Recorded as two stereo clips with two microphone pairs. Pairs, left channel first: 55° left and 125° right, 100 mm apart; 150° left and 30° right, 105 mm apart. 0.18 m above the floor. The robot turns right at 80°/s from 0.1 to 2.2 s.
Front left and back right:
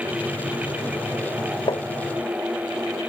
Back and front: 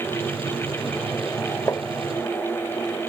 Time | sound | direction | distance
1.7 | tapping | 90° left | ?